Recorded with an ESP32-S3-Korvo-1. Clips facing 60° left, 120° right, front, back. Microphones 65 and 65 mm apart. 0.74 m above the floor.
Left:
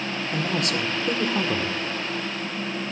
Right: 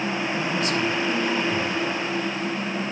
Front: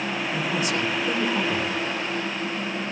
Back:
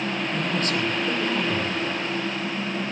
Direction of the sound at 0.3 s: 80° left.